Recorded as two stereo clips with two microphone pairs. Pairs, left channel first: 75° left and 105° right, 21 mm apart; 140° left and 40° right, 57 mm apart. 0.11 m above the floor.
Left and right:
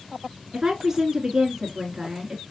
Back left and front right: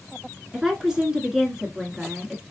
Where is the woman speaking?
95° right, 1.1 m.